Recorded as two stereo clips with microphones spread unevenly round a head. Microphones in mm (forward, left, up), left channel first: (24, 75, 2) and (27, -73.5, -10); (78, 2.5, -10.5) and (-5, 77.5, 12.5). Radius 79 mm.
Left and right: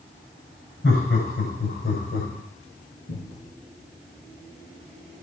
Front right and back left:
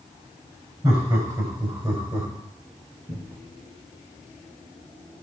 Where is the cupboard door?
80° left, 5.5 m.